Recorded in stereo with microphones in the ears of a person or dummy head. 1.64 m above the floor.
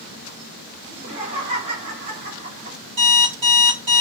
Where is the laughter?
40° right (ahead or behind), 1.4 m.